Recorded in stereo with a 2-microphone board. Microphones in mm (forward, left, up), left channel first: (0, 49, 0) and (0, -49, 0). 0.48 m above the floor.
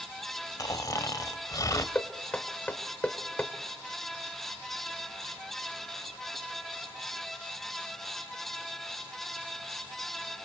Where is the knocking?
15° left (ahead or behind), 1.6 m.